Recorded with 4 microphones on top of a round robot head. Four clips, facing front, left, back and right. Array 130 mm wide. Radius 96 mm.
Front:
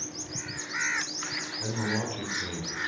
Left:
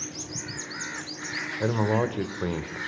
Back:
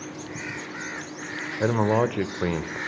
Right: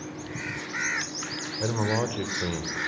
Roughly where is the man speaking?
Behind.